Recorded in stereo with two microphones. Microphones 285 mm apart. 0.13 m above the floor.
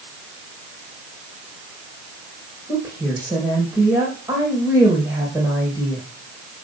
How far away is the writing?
I don't hear writing.